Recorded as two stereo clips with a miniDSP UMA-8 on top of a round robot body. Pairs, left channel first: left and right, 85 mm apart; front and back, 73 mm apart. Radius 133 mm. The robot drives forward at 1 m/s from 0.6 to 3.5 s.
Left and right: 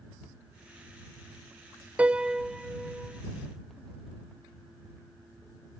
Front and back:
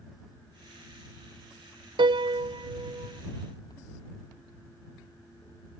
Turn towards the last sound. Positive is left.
turn(degrees=-175)